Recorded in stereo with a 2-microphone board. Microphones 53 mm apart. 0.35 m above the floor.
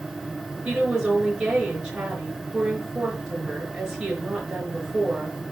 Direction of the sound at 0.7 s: 15° right (ahead or behind).